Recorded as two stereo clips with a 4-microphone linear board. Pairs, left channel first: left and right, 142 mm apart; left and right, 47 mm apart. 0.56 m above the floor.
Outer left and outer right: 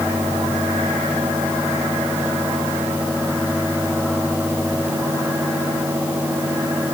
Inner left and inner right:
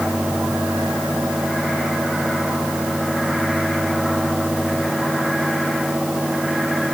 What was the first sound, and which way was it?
Only background noise.